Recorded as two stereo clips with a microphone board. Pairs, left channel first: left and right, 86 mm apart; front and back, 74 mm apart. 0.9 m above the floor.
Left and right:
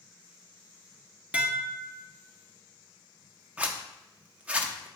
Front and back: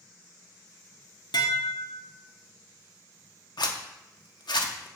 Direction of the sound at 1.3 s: 15° right.